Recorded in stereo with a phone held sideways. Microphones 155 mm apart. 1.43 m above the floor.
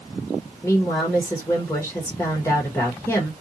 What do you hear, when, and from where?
0.6 s a woman speaking: 15° left (ahead or behind), 1.1 m